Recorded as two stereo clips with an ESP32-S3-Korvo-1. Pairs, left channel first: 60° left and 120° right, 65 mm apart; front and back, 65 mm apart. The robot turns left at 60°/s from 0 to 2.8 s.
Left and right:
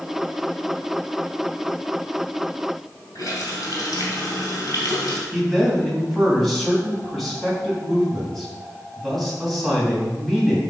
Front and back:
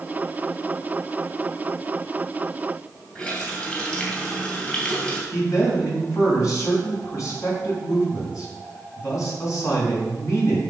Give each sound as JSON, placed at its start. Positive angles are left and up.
{"t": 3.1, "sound": "a running tap", "azimuth_deg": 70, "distance_m": 2.5}
{"t": 5.3, "sound": "a man speaking", "azimuth_deg": -30, "distance_m": 3.0}